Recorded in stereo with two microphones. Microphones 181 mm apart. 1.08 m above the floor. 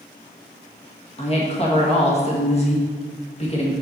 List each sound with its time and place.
1.2 s a woman speaking: 35° left (ahead or behind), 1.6 m